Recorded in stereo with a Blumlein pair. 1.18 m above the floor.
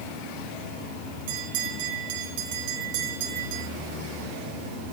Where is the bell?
50° right, 4.5 m.